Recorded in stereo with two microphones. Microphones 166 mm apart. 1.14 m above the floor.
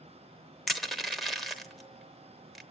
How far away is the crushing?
About 0.9 m.